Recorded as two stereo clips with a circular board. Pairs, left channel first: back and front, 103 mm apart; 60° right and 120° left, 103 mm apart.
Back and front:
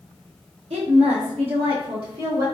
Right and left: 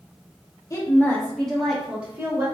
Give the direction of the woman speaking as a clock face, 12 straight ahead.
12 o'clock.